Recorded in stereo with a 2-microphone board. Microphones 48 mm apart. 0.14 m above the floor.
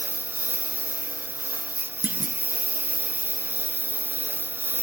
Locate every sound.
0.0 s a lawn mower: 45° right (ahead or behind)
2.0 s a clunk: 40° right (ahead or behind)